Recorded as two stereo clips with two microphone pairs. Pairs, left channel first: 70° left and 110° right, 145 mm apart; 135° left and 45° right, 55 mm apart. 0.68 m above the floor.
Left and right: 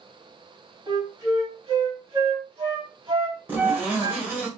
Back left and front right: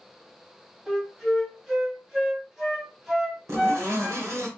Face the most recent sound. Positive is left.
turn(degrees=-30)